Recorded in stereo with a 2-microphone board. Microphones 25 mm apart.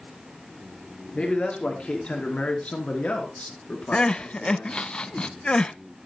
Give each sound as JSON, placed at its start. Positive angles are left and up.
{"t": 1.1, "sound": "a man speaking", "side_deg": 40, "distance_m": 4.0}
{"t": 3.9, "sound": "crying", "side_deg": 30, "distance_m": 0.6}